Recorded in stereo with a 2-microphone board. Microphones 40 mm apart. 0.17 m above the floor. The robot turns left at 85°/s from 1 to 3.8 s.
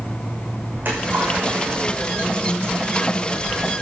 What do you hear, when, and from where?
0.7 s a splash: 60° right (ahead or behind), 7 m; by 2.6 s 20° left (ahead or behind), 7 m